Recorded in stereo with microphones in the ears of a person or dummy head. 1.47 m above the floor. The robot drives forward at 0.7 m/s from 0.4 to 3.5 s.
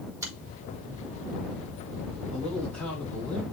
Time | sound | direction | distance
0.2 | a finger snap | 15° right (ahead or behind) | 3.5 m
2.3 | a man speaking | 5° left (ahead or behind) | 2.5 m